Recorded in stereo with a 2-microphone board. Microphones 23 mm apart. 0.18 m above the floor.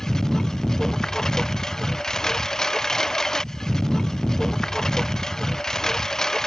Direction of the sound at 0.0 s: 25° left (ahead or behind).